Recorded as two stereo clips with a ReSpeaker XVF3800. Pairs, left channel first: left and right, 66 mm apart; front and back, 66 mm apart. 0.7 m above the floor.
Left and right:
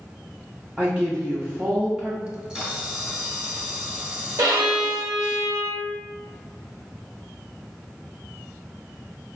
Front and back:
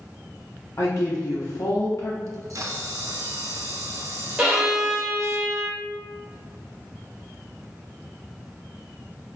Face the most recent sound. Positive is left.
turn(degrees=-95)